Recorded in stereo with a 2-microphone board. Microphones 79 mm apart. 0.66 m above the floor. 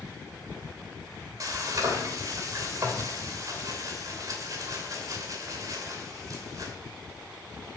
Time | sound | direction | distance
1.4 | frying | 50° right (ahead or behind) | 2.5 m